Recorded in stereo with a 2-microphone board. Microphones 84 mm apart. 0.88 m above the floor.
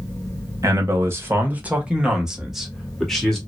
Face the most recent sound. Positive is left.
turn(degrees=5)  # may be behind; listen again after turning